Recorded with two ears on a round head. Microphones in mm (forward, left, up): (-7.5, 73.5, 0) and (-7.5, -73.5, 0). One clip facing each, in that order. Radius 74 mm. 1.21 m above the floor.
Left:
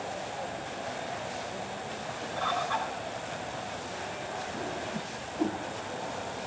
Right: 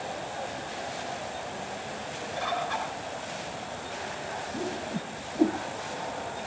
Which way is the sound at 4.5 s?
35° right (ahead or behind).